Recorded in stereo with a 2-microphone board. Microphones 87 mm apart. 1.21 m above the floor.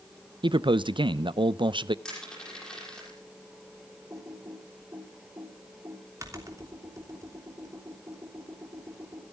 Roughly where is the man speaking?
Right.